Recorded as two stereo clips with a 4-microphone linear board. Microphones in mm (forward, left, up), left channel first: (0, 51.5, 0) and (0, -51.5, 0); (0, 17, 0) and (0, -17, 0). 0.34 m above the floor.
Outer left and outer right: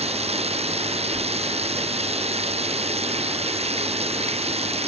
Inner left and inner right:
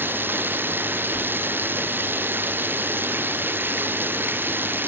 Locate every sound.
0.0 s running water: 85° right